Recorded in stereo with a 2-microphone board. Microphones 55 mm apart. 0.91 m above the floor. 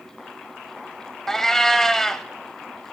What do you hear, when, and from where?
1.3 s a cat meowing: 5° left (ahead or behind), 0.7 m